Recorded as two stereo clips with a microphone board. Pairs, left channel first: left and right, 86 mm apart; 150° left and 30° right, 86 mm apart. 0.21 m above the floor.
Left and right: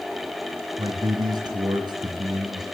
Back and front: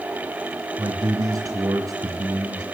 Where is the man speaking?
70° right, 3 m.